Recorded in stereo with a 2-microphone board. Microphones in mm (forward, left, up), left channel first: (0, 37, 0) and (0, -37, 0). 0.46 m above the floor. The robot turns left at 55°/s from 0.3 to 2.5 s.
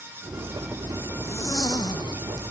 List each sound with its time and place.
0.2 s a zipper: 165° right; by 2.5 s 75° left